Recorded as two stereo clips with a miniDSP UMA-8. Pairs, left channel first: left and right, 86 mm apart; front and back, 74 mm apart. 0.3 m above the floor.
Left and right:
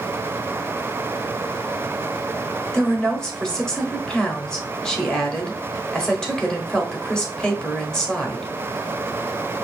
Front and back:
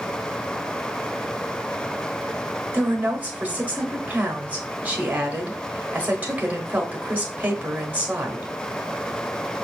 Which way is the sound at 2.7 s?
160° left.